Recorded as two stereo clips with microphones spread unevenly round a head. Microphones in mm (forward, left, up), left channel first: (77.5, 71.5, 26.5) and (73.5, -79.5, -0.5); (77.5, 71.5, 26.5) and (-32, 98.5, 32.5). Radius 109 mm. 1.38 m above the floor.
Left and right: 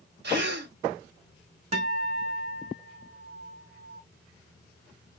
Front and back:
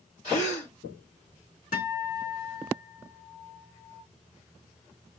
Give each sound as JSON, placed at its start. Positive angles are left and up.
{"t": 0.2, "sound": "a gasp", "azimuth_deg": -75, "distance_m": 2.5}
{"t": 1.7, "sound": "a guitar", "azimuth_deg": -45, "distance_m": 2.0}